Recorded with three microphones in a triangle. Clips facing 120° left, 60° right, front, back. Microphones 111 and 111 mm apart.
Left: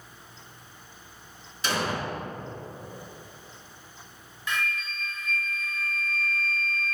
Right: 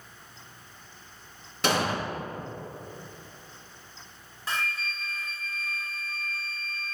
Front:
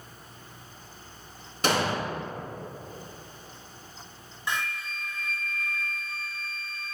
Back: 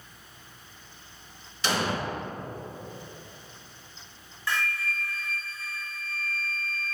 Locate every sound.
1.6 s an explosion: 35° right, 2 m
4.5 s a flute: 55° right, 0.9 m